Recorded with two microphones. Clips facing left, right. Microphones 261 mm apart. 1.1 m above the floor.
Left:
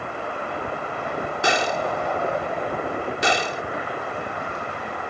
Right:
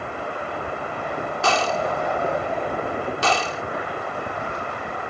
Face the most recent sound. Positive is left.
turn(degrees=15)  # may be behind; listen again after turning